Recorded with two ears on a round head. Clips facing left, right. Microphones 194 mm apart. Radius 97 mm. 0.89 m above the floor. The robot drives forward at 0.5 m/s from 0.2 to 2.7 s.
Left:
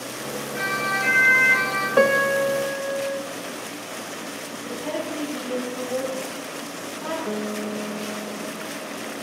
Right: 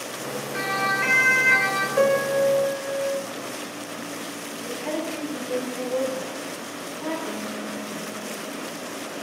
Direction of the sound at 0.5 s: 65° right (ahead or behind).